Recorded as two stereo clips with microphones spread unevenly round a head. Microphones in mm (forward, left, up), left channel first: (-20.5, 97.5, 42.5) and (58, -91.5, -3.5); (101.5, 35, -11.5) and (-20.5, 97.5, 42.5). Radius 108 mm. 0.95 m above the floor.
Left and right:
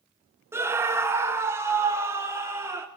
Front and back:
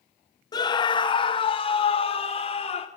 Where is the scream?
5° right, 1.3 m; by 2.9 s 5° left, 3 m.